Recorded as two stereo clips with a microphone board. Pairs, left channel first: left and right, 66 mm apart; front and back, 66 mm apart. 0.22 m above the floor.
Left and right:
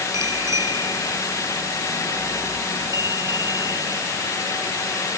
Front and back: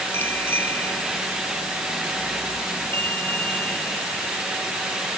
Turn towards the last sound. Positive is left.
turn(degrees=-65)